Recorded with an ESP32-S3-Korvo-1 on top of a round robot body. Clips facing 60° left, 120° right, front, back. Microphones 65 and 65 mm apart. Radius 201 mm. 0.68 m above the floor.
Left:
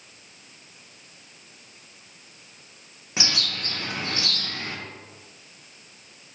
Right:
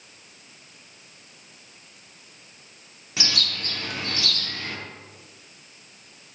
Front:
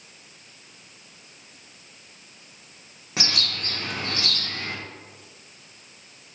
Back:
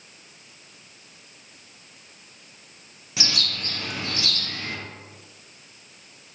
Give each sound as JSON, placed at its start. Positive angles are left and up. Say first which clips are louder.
{"t": 3.2, "sound": "a bird", "louder": "even, front 1 dB", "azimuth_deg": 10, "distance_m": 0.9}